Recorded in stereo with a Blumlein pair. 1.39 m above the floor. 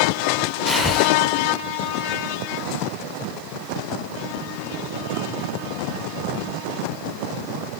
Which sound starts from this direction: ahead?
Breathing, at 0.7 s.